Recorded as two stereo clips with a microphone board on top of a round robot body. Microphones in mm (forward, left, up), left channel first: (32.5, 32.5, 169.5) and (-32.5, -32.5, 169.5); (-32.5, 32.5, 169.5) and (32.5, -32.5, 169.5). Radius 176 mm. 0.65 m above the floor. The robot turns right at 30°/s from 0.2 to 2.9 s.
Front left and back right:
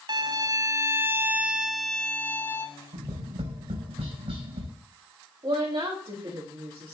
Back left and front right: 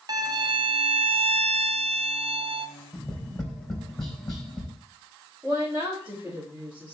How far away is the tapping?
About 3.5 m.